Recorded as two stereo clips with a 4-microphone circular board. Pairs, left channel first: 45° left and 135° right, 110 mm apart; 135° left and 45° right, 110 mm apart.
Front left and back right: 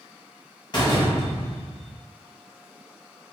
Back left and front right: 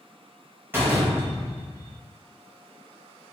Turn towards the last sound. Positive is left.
turn(degrees=20)